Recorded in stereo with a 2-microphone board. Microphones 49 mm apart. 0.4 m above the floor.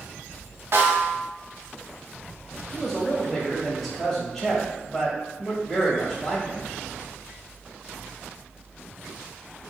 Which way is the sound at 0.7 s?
65° right (ahead or behind).